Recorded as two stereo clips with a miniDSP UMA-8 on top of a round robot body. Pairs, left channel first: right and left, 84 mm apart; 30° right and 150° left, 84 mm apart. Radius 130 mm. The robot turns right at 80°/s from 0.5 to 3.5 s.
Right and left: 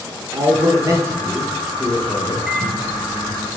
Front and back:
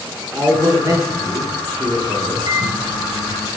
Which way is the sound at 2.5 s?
Straight behind.